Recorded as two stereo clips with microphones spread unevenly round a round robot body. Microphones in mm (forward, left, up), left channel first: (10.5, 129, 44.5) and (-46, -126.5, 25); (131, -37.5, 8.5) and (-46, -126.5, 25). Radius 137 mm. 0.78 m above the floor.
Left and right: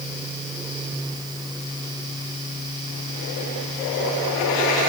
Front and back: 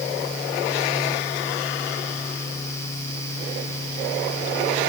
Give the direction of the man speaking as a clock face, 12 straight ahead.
I don't hear a man speaking.